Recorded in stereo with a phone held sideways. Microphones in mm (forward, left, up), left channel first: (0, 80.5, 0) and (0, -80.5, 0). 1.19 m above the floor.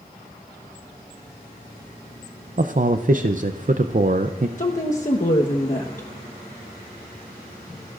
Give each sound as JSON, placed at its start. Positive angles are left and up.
{"t": 2.6, "sound": "a man speaking", "side_deg": -55, "distance_m": 0.6}
{"t": 4.6, "sound": "a woman speaking", "side_deg": 50, "distance_m": 1.2}